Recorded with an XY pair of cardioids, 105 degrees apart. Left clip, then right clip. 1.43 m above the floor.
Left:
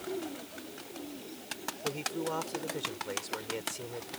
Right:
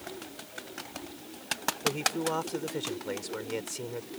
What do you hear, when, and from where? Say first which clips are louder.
1.8 s a man speaking: right 5 dB; 25° right